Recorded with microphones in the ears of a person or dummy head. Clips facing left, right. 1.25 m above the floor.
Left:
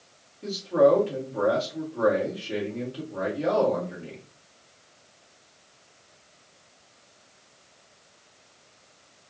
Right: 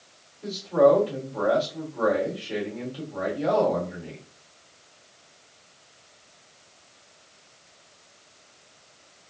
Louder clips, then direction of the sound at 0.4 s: Right 1 dB; 25° left (ahead or behind).